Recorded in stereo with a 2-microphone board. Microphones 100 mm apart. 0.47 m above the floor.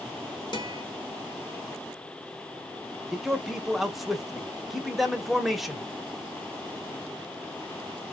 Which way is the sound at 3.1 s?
5° right (ahead or behind).